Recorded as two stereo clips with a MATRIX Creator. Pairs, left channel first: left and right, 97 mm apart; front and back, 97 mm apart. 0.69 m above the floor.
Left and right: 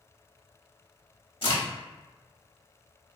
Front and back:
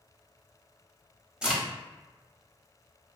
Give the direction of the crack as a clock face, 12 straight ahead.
9 o'clock.